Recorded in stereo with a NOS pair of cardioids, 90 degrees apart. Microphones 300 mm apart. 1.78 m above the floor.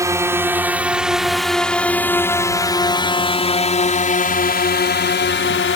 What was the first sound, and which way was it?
A drone, 10° right.